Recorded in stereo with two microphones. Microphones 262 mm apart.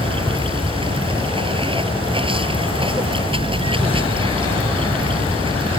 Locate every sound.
0.0 s running water: 20° right (ahead or behind)